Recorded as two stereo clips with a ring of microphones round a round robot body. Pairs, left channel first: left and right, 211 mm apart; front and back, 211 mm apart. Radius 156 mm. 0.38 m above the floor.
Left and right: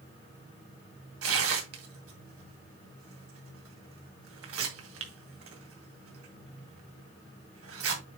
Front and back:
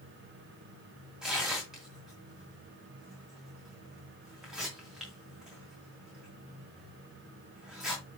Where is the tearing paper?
90° right, 2 m.